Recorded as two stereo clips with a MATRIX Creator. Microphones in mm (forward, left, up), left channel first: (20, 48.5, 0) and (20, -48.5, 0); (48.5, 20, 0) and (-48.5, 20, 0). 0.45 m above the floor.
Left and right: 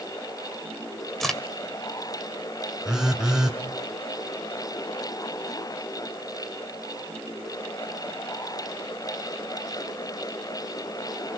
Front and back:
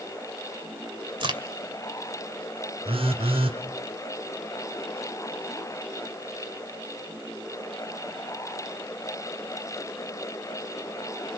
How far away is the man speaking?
I don't hear a man speaking.